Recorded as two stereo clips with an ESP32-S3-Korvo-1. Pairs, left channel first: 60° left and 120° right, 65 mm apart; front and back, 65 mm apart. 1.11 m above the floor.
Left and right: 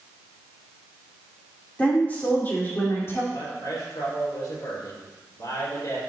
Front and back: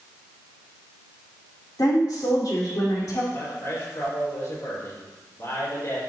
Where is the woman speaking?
5° right, 3.5 m; by 3.2 s 10° left, 3.5 m.